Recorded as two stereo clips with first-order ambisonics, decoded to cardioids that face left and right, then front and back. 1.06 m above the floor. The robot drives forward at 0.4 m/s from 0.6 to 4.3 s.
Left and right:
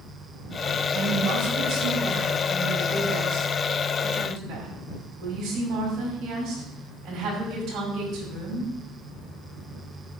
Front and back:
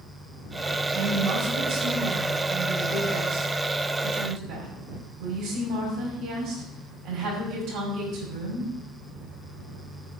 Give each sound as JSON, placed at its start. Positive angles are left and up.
{"t": 0.9, "sound": "a woman speaking", "azimuth_deg": -140, "distance_m": 4.5}